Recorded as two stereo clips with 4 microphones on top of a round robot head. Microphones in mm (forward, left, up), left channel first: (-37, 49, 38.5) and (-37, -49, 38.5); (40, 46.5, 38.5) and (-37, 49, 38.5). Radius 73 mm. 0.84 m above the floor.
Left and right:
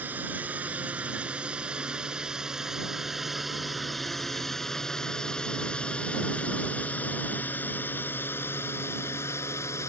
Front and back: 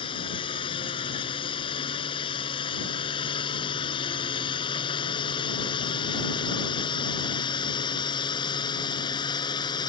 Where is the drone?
15° right; by 9.9 s 20° left.